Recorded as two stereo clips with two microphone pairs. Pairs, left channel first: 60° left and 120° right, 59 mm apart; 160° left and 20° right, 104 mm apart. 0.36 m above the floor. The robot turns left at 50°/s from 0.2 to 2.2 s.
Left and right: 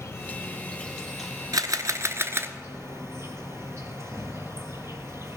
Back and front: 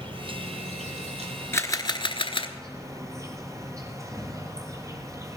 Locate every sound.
0.0 s an insect: 20° left, 1.6 m; by 5.4 s 80° right, 1.6 m
1.5 s a camera shutter: 135° right, 0.9 m; by 2.5 s 170° right, 0.9 m